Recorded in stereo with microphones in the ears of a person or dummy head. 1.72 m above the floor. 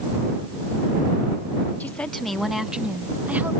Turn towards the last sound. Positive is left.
turn(degrees=-10)  # may be behind; listen again after turning